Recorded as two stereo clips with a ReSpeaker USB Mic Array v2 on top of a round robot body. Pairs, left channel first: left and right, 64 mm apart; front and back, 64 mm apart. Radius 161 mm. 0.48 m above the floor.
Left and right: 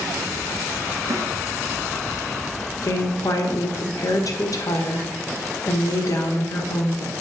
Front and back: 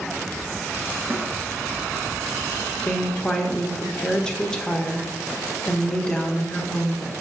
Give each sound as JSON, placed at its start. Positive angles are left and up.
{"t": 1.1, "sound": "a snare drum", "azimuth_deg": -120, "distance_m": 1.9}
{"t": 2.8, "sound": "a woman speaking", "azimuth_deg": 75, "distance_m": 1.6}